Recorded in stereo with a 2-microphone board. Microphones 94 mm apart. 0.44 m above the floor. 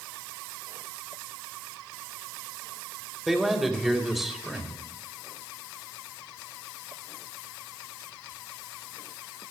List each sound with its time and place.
3.3 s a man speaking: centre (ahead or behind), 2.0 m